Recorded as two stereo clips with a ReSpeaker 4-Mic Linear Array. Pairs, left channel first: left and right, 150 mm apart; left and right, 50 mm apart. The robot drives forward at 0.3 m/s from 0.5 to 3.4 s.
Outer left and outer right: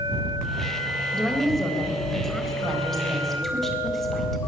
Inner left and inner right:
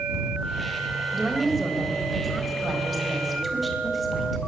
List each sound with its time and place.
1.1 s a woman speaking: centre (ahead or behind), 3.5 m